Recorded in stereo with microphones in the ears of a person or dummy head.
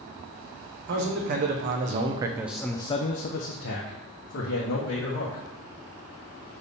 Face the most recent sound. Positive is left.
turn(degrees=90)